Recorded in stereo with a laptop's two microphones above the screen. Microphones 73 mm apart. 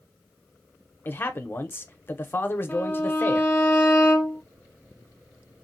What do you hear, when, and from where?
1.1 s a man speaking: 30° left (ahead or behind), 0.6 m
2.7 s a violin: 20° left (ahead or behind), 0.7 m